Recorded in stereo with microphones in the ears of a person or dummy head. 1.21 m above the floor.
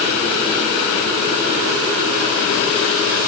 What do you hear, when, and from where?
Only background noise.